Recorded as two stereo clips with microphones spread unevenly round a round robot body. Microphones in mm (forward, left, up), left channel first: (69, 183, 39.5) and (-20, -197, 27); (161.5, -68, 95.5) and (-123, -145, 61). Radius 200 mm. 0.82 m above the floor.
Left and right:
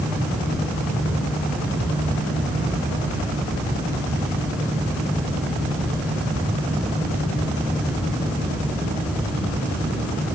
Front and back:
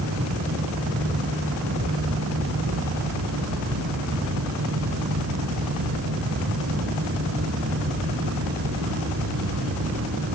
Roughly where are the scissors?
I don't hear scissors.